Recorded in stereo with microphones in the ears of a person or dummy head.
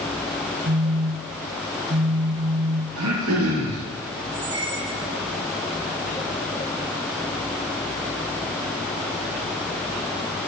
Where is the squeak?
50° right (ahead or behind), 4 m.